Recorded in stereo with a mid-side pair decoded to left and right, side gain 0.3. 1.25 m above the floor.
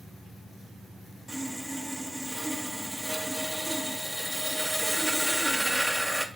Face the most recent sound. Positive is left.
turn(degrees=-5)